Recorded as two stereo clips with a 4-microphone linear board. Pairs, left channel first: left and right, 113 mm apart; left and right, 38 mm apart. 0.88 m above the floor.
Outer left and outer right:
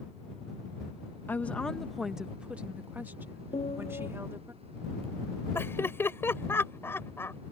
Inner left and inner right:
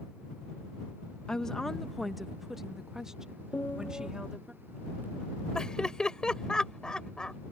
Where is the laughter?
20° left (ahead or behind).